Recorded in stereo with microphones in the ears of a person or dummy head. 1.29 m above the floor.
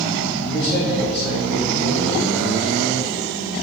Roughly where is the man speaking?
Right.